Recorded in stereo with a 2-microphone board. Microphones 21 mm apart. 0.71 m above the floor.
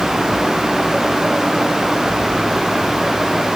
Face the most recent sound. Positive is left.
No sound to turn to.